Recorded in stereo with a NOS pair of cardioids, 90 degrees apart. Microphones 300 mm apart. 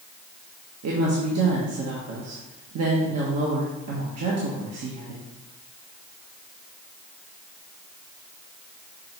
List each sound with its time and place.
0.8 s a woman speaking: 55° right, 1.6 m